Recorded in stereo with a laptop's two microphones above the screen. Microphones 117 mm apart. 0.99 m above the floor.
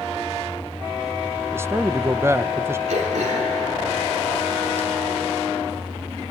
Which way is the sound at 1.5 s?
20° right (ahead or behind).